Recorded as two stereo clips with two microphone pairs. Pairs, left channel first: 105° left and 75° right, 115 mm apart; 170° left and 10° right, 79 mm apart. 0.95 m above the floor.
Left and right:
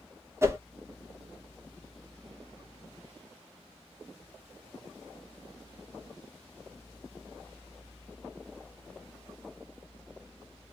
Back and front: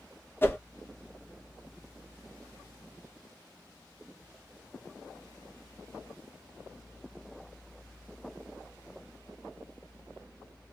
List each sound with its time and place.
0.4 s a whoosh: 135° right, 0.8 m